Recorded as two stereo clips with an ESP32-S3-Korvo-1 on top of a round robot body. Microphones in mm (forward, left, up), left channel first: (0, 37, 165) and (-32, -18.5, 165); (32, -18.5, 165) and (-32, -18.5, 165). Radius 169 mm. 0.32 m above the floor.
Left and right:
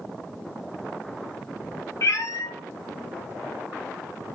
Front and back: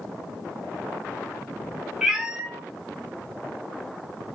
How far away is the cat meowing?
About 0.6 m.